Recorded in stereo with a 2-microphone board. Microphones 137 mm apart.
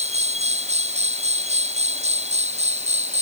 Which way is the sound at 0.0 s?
55° right (ahead or behind).